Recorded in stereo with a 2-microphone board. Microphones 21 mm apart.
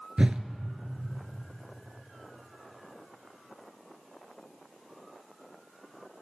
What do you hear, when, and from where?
0.2 s a whoosh: 55° right (ahead or behind), 0.6 m